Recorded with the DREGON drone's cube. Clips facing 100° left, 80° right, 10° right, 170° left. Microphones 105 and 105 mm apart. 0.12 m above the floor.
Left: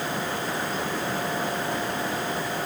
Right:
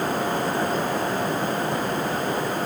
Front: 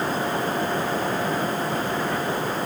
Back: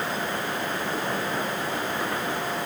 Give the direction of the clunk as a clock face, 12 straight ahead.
I don't hear a clunk.